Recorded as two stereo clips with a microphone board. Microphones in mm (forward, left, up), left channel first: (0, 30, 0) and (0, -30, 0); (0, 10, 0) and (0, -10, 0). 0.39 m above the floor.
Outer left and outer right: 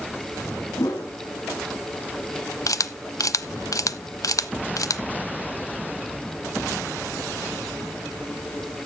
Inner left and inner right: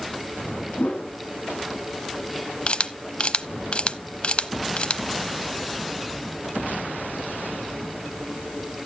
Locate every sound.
0.8 s a whoosh: 75° left (ahead or behind), 2.0 m
2.7 s a camera shutter: 65° left (ahead or behind), 0.5 m